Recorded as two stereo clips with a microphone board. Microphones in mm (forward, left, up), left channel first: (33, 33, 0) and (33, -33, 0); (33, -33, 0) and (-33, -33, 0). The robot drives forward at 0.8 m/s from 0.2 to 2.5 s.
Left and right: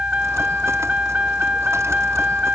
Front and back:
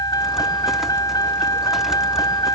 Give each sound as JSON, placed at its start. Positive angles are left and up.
{"t": 0.0, "sound": "a vehicle", "azimuth_deg": -20}